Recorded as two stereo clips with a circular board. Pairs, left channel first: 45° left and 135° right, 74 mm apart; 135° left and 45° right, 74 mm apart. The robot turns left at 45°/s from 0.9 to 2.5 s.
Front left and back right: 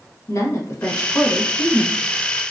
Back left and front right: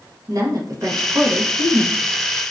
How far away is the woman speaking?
About 0.7 m.